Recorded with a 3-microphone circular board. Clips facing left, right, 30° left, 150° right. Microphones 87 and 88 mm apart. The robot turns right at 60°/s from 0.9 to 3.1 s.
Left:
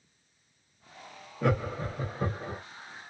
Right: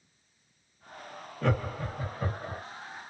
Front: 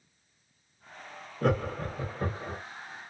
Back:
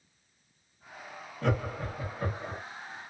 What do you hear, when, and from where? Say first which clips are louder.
1.4 s laughter: left 2 dB, front 3 dB; 20° left, 1.0 m; by 2.6 s 90° left, 1.0 m